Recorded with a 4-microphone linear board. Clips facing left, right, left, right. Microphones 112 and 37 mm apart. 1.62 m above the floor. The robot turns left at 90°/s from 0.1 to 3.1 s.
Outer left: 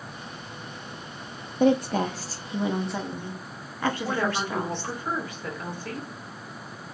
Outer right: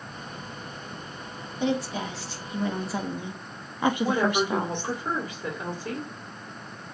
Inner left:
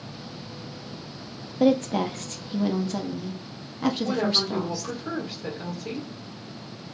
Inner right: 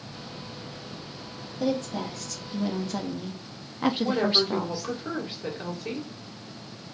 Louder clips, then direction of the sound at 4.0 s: Outer right 3 dB, inner right 1 dB; 20° right (ahead or behind).